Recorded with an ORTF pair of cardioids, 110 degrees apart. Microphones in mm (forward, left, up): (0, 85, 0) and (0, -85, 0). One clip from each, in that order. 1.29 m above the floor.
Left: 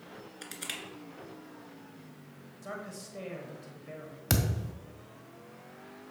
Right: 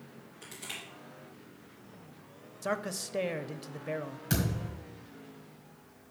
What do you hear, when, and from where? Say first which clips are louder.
0.4 s crushing: left 2 dB; 60° left, 2.5 m
2.6 s a man speaking: right 8 dB; 60° right, 0.8 m
4.3 s a thud: left 2 dB; 65° left, 1.9 m